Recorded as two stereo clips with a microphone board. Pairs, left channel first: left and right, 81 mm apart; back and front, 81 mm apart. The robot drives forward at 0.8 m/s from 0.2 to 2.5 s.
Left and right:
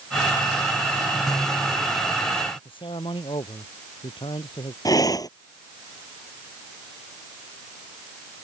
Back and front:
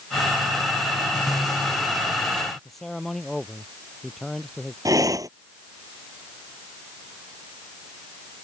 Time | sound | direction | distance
2.6 | a man speaking | 95° left | ?
4.8 | breathing | 45° left | ?